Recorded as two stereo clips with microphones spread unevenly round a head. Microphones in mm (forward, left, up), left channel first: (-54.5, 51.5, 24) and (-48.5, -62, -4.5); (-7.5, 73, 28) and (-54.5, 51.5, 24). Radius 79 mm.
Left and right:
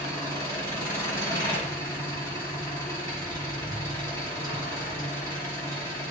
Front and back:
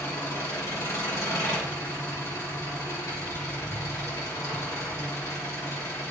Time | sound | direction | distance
0.0 | an engine running | 20° left | 6 m